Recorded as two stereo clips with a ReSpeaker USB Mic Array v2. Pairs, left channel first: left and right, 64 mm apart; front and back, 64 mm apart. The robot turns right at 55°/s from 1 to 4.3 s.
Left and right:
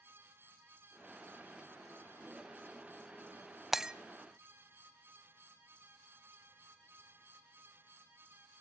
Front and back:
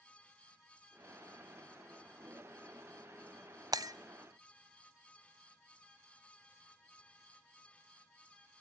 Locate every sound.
3.7 s breaking glass: 175° right, 0.6 m; by 4.0 s 165° right, 0.6 m